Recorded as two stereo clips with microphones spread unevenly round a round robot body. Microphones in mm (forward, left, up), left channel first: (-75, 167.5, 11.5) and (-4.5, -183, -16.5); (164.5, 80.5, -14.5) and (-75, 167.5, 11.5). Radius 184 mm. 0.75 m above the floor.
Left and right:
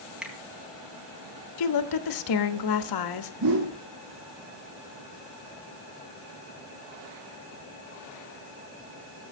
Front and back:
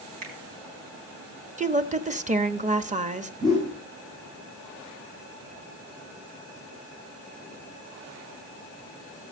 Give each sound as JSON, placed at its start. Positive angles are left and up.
{"t": 0.2, "sound": "a finger snap", "azimuth_deg": -165, "distance_m": 4.5}
{"t": 1.6, "sound": "a woman speaking", "azimuth_deg": 100, "distance_m": 1.2}
{"t": 3.4, "sound": "a whoosh", "azimuth_deg": -120, "distance_m": 6.5}